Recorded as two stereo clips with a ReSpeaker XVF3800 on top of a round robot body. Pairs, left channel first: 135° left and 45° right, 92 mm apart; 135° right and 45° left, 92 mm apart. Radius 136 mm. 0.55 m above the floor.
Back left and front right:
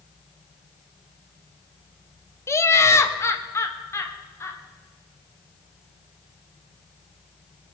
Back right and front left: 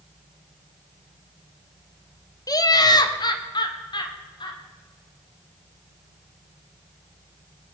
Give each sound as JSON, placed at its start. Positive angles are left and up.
{"t": 2.5, "sound": "laughter", "azimuth_deg": -170, "distance_m": 1.3}